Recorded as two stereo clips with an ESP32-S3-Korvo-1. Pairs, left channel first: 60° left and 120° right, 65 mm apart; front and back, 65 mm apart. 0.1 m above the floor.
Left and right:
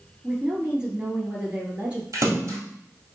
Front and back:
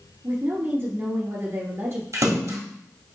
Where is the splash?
155° right, 1.4 m.